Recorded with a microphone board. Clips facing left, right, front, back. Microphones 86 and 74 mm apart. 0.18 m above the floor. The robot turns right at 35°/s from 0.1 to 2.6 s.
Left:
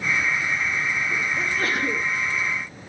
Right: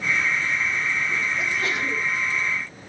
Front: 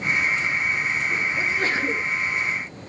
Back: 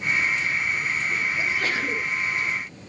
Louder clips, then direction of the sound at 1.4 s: Left 1 dB, front 2 dB; 45° left.